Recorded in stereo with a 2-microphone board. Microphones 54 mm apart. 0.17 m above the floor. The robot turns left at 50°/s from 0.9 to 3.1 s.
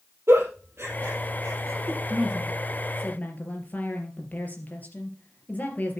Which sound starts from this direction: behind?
A woman speaking, at 2.1 s.